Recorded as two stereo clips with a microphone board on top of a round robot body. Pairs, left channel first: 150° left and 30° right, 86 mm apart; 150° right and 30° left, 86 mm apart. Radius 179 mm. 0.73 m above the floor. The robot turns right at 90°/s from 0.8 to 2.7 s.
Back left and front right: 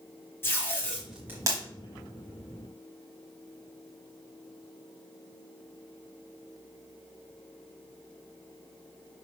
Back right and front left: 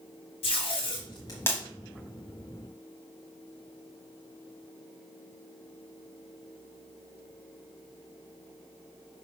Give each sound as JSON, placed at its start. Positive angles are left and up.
{"t": 0.4, "sound": "tape being pulled", "azimuth_deg": -145, "distance_m": 1.0}